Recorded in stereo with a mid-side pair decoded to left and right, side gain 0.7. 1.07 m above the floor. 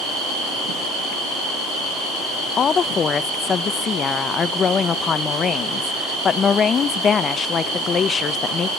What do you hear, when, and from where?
2.6 s a woman speaking: 35° left, 0.6 m